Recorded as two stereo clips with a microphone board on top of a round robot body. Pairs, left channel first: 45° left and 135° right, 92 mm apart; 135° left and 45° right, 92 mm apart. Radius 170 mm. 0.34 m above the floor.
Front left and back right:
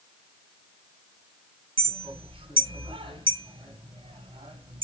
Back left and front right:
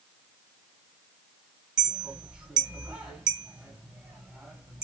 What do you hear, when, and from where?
1.8 s a clink: 130° right, 1.8 m